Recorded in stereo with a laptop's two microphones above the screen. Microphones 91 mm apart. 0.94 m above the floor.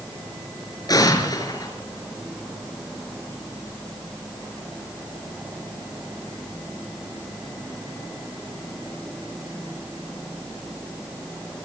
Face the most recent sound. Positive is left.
turn(degrees=45)  # may be behind; listen again after turning